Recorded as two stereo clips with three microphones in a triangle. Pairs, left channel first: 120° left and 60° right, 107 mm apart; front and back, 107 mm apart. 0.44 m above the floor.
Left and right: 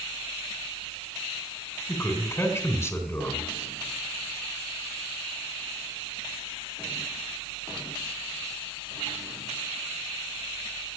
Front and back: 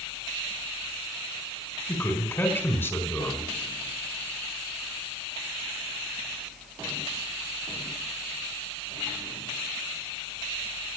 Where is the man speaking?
60° left, 2 m.